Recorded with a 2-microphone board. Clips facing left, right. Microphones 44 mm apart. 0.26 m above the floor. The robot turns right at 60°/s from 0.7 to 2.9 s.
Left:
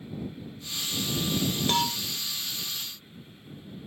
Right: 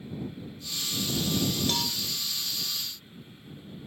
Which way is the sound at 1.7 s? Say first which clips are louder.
Left 5 dB; 35° left (ahead or behind).